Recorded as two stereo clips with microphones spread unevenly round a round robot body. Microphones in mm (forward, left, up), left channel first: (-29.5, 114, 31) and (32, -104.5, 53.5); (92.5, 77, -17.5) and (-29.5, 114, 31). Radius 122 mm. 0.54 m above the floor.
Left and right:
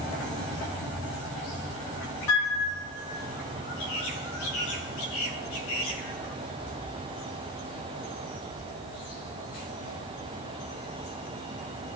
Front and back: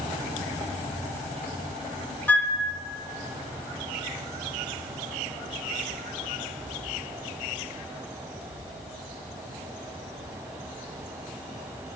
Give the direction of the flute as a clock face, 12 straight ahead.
10 o'clock.